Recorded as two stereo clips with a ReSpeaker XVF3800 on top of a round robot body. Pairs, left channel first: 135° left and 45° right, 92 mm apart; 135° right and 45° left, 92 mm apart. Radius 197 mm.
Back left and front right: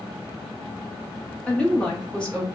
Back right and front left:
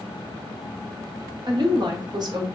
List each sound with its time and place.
1.5 s a woman speaking: 60° left, 1.4 m